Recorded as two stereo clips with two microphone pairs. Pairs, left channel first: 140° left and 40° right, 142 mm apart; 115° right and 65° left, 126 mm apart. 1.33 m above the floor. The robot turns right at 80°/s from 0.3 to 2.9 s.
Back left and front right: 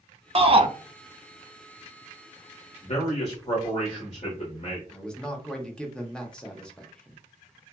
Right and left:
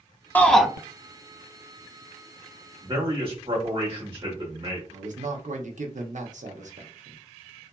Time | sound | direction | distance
0.3 | a shout | 40° right | 0.5 m
2.8 | a man speaking | 100° left | 1.3 m
4.9 | a man speaking | 55° left | 0.7 m